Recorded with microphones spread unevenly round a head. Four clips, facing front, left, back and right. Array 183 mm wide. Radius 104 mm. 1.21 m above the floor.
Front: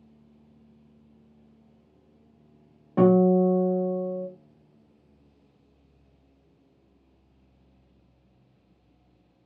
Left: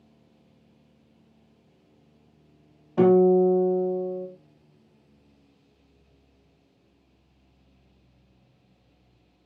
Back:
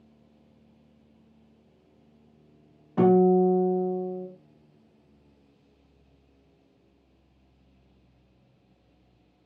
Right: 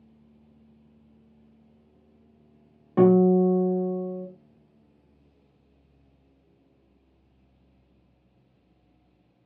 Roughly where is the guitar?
Right.